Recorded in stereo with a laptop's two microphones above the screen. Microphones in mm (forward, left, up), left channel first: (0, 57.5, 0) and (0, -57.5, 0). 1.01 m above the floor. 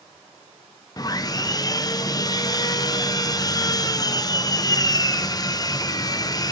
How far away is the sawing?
About 0.6 m.